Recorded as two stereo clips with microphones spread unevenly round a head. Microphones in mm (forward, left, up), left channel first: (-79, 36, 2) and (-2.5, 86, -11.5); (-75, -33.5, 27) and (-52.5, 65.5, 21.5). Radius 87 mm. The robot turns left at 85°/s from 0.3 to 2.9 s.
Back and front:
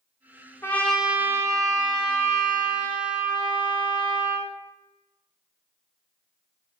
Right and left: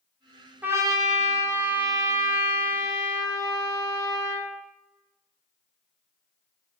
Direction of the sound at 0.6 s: 145° left.